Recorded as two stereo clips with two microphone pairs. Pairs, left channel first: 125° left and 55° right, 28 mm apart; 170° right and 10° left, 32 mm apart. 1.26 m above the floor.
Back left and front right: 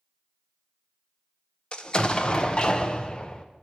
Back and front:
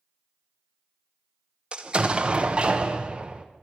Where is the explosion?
70° left, 0.5 m.